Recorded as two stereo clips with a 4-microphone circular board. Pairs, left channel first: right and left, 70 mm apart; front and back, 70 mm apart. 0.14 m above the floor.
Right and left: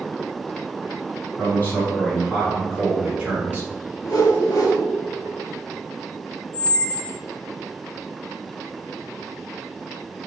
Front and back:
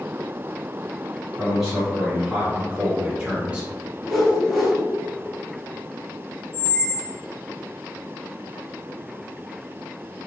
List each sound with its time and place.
1.4 s a man speaking: 100° right, 1.4 m; by 3.7 s 120° left, 1.4 m
4.0 s a whoosh: 90° right, 1.1 m
6.5 s a squeak: 90° right, 1.4 m